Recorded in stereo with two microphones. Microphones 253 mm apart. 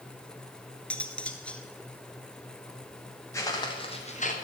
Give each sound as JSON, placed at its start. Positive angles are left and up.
{"t": 0.9, "sound": "cutlery clinking", "side_deg": 5, "distance_m": 0.9}
{"t": 3.3, "sound": "footsteps", "side_deg": 10, "distance_m": 2.5}